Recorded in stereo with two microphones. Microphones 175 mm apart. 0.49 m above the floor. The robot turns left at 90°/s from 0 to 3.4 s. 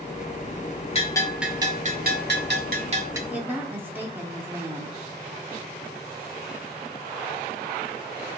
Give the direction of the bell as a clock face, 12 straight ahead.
11 o'clock.